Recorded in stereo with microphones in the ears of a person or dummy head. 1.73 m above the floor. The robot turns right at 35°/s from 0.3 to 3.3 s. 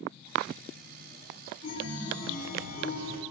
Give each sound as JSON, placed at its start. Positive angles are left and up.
{"t": 1.6, "sound": "a chime", "azimuth_deg": 85, "distance_m": 1.3}